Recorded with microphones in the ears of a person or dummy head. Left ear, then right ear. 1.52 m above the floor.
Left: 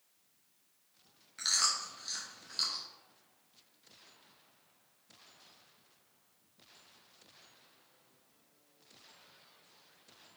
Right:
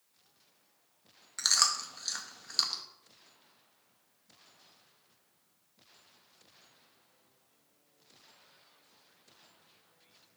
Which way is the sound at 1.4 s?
40° right (ahead or behind).